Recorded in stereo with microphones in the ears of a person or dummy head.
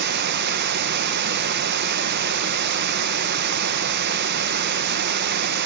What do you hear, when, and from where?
0.0 s running water: 50° right (ahead or behind), 0.9 m